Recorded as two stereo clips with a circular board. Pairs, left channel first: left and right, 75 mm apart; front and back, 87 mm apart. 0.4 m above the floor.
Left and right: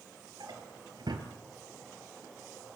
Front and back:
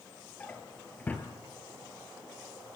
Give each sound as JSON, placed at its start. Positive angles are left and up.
{"t": 0.4, "sound": "a drawer", "azimuth_deg": -70, "distance_m": 3.5}